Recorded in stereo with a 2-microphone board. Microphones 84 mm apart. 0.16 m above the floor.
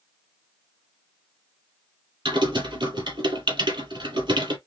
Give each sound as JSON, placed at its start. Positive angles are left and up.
{"t": 2.2, "sound": "typing on a keyboard", "side_deg": -70, "distance_m": 3.0}